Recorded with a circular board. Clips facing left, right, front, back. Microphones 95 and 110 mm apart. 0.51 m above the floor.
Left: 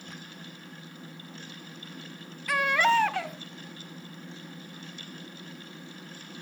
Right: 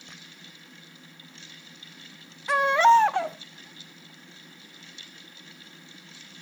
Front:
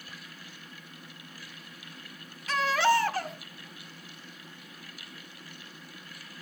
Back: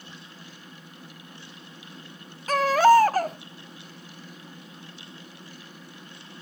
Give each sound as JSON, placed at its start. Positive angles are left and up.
{"t": 2.5, "sound": "a baby crying", "azimuth_deg": -145, "distance_m": 0.5}